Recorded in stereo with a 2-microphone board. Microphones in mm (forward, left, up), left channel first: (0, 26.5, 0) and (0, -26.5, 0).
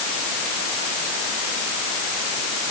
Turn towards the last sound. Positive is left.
No sound to turn to.